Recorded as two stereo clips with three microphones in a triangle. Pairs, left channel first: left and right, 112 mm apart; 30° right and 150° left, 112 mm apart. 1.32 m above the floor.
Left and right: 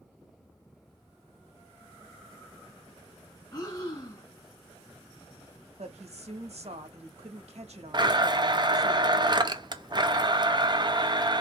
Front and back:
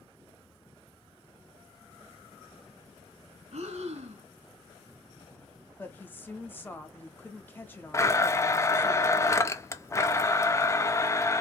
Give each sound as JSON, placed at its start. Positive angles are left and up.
{"t": 3.5, "sound": "breathing", "azimuth_deg": 145, "distance_m": 2.5}
{"t": 5.8, "sound": "a woman speaking", "azimuth_deg": -100, "distance_m": 1.6}
{"t": 7.9, "sound": "a blender", "azimuth_deg": -80, "distance_m": 0.7}